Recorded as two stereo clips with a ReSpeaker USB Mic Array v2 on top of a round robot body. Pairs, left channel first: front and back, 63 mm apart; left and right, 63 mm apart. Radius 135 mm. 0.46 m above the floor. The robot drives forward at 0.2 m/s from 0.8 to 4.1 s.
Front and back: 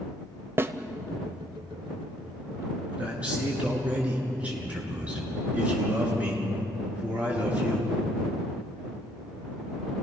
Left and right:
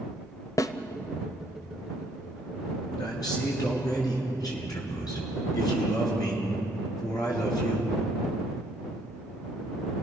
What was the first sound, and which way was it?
A snare drum, 125° left.